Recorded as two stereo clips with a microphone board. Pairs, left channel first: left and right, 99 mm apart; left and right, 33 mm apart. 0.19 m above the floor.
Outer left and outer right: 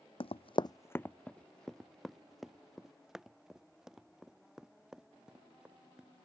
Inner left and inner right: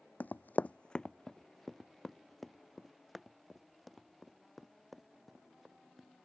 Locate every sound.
0.2 s running footsteps: 65° left (ahead or behind); by 6.1 s 10° right (ahead or behind)